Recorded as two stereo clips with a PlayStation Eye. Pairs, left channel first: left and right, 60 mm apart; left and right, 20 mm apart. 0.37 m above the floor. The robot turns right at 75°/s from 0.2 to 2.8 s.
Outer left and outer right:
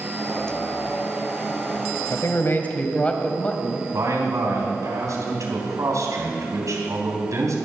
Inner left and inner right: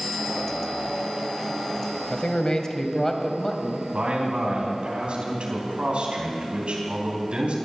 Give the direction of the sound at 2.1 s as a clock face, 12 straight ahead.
9 o'clock.